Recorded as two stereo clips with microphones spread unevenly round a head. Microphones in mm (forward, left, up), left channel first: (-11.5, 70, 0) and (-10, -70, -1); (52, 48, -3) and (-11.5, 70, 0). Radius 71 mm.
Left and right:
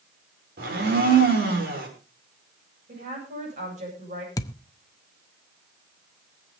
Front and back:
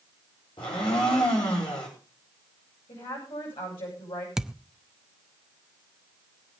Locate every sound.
0.6 s a blender: 60° right, 5.5 m
2.9 s a woman speaking: 45° right, 9 m
4.4 s a thud: 95° left, 0.8 m